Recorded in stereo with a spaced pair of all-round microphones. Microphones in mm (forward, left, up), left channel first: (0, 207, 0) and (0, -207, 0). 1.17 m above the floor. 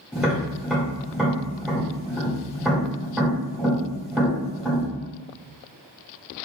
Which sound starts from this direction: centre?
Tapping, at 0.1 s.